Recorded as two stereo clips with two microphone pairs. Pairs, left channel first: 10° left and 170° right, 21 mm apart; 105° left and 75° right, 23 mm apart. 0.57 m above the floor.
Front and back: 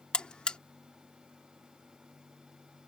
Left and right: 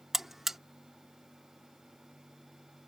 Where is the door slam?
I don't hear a door slam.